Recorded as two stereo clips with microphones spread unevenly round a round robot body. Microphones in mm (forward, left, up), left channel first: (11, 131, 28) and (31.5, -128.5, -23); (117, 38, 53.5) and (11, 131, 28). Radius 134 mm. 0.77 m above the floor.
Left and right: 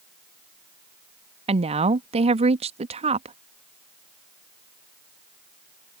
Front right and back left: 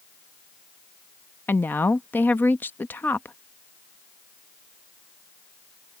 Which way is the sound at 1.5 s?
125° right.